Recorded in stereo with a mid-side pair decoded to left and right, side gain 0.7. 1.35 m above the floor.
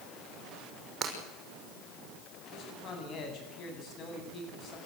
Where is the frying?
No frying in this recording.